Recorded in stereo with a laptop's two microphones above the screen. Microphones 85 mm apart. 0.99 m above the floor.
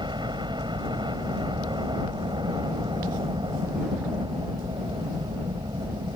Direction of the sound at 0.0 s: 65° right (ahead or behind).